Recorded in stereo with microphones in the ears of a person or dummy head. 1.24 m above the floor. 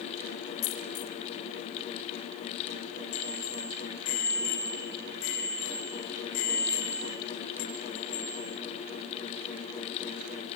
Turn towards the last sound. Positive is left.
turn(degrees=85)